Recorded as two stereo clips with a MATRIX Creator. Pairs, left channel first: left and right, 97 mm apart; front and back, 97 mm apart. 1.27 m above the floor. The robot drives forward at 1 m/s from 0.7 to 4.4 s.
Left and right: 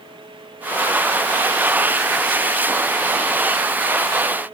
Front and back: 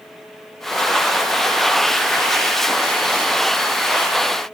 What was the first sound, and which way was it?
Only background noise.